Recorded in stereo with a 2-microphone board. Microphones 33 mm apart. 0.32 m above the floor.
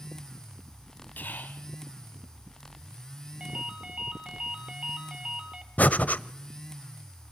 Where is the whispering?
65° left (ahead or behind), 2.0 m.